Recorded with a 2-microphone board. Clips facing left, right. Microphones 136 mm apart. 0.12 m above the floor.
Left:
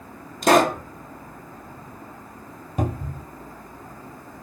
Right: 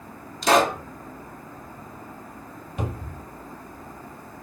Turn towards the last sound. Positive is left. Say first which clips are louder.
# left 5 dB
turn(degrees=40)  # may be behind; listen again after turning